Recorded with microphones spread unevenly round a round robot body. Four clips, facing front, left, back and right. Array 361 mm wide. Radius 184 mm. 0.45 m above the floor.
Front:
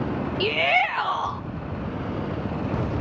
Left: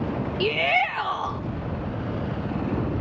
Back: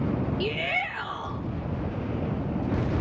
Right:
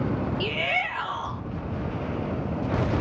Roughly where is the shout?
Left.